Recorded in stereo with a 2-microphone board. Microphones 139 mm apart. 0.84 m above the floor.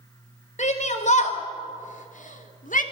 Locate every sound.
0.6 s a shout: 55° left (ahead or behind), 4.5 m; by 2.8 s 70° left (ahead or behind), 2.5 m